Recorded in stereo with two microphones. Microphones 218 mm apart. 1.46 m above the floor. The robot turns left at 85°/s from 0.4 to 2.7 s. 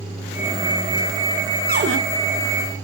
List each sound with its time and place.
1.7 s a cupboard door: 40° right (ahead or behind), 0.6 m; by 2.0 s 65° right (ahead or behind), 0.6 m